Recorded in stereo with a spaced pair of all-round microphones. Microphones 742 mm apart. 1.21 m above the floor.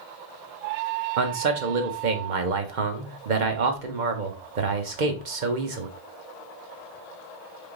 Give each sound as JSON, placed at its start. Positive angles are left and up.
{"t": 1.2, "sound": "a man speaking", "side_deg": -90, "distance_m": 1.1}